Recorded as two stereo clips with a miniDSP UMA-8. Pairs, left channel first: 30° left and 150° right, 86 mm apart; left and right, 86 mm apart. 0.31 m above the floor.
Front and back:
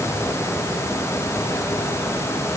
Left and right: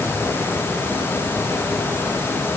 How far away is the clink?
I don't hear a clink.